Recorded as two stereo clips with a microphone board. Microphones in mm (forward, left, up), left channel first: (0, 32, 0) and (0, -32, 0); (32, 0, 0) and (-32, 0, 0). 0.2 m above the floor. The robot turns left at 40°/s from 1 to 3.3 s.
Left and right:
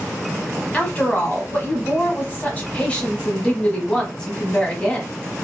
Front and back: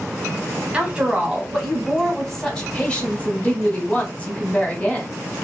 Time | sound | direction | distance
0.7 | a woman speaking | 125° left | 1.0 m